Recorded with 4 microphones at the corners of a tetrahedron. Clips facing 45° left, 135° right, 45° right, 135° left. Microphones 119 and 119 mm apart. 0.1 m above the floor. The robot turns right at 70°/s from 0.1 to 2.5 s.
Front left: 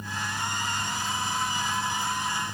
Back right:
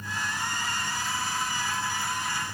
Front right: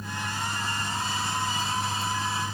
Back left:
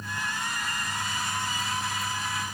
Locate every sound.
Only background noise.